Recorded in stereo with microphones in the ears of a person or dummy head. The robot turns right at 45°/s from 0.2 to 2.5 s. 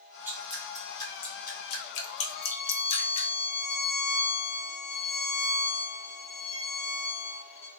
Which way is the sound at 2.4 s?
25° left (ahead or behind).